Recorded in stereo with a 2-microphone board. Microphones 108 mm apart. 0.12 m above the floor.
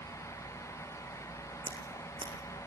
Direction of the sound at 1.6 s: 50° right (ahead or behind).